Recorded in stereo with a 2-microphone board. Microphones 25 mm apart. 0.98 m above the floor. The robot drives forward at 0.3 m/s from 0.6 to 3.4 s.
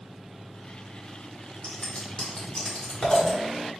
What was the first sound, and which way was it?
Scissors, 50° left (ahead or behind).